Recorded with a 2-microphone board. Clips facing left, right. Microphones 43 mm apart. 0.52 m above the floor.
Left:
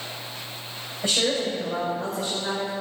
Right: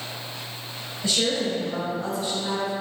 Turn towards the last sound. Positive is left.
turn(degrees=45)  # may be behind; listen again after turning